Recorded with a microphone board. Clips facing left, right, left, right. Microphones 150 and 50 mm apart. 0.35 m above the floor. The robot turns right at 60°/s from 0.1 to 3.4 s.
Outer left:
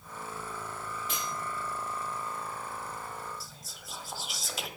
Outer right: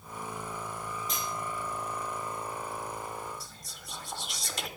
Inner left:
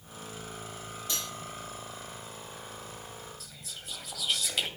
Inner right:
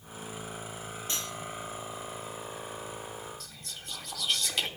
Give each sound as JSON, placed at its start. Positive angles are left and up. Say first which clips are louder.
{"t": 1.1, "sound": "cutlery clinking", "louder": "outer left 1 dB, even", "side_deg": -40, "distance_m": 5.0}
{"t": 3.4, "sound": "whispering", "louder": "even, inner right 1 dB", "side_deg": 0, "distance_m": 1.4}